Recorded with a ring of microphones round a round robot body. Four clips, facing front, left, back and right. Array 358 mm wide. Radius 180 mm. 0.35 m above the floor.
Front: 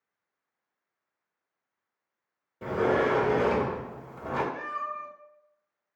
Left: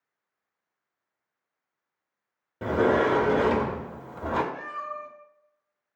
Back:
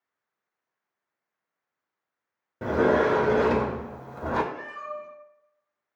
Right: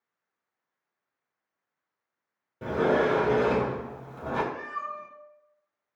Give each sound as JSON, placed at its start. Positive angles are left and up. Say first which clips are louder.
{"t": 2.6, "sound": "a sliding door", "louder": "left 2 dB, back 4 dB", "azimuth_deg": 145, "distance_m": 0.6}
{"t": 4.5, "sound": "a cat meowing", "louder": "even, front 2 dB", "azimuth_deg": -55, "distance_m": 1.5}